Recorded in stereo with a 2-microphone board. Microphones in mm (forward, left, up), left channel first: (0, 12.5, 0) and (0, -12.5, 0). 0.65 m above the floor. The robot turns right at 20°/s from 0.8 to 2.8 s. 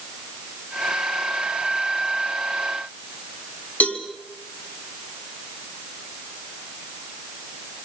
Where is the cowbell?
85° left, 4.5 m.